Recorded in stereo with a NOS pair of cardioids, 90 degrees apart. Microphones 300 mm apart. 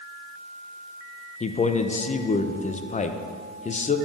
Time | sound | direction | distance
1.4 | a man speaking | 25° left | 0.5 m